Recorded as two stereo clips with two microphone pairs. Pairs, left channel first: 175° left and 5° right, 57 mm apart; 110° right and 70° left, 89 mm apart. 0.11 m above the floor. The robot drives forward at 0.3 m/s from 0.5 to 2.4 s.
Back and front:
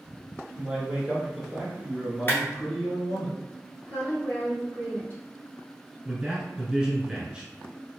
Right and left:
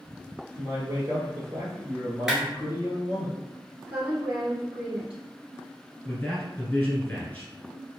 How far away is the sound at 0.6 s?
About 1.5 m.